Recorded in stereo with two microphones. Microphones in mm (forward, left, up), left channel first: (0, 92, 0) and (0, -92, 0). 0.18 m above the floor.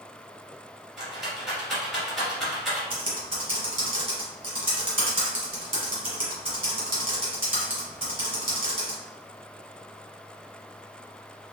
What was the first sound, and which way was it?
A rattle, centre (ahead or behind).